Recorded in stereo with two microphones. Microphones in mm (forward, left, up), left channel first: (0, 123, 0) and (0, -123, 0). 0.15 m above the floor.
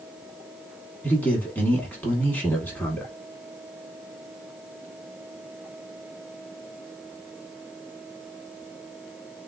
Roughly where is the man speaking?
Centre.